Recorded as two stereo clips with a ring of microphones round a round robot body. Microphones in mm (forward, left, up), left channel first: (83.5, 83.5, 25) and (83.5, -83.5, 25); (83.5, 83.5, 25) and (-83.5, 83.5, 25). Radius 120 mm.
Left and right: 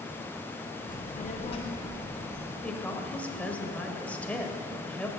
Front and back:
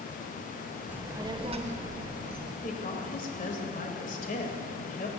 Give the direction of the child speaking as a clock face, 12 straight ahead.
9 o'clock.